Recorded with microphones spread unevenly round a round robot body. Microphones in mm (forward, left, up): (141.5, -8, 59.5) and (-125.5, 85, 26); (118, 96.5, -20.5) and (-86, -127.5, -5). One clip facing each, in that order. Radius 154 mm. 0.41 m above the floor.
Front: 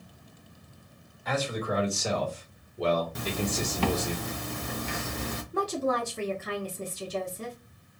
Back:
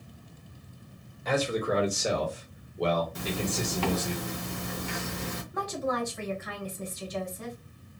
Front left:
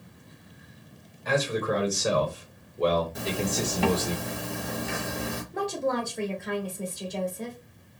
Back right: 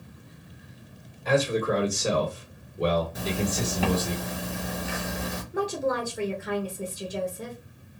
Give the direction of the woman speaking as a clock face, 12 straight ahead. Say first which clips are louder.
Front 3 dB, back right 1 dB; 2 o'clock.